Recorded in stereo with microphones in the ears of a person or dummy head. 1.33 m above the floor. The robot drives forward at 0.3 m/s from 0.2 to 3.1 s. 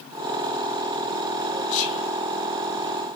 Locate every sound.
1.7 s whispering: 80° left, 3 m